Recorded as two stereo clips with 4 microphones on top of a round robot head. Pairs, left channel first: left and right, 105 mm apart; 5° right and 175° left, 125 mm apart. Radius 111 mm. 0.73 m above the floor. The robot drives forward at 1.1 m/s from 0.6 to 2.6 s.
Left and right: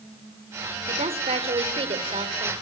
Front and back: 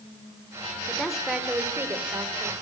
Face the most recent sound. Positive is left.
turn(degrees=-120)